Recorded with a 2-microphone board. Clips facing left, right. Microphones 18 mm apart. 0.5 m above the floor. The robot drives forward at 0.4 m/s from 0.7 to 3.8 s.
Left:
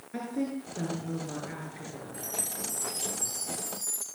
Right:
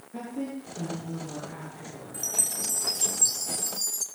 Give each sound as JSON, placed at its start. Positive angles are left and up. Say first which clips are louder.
{"t": 0.1, "sound": "a woman speaking", "louder": "left 2 dB", "side_deg": 55, "distance_m": 9.5}
{"t": 2.1, "sound": "a chime", "louder": "right 7 dB", "side_deg": -70, "distance_m": 3.5}